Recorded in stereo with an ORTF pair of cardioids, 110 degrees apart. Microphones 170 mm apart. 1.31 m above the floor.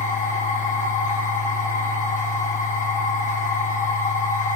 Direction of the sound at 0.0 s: 45° left.